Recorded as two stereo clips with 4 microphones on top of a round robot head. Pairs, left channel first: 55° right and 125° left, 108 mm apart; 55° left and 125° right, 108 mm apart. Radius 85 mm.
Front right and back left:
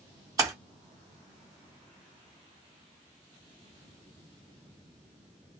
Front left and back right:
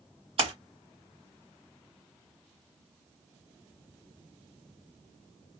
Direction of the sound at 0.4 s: 170° right.